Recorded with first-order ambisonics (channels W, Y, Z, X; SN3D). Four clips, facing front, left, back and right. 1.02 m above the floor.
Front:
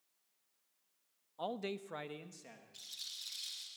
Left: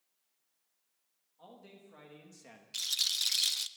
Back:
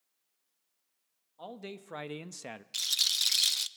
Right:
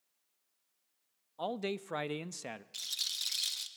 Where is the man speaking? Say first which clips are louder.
Right 18 dB, front 3 dB; 70° right, 0.9 m; by 2.6 s 145° right, 0.9 m.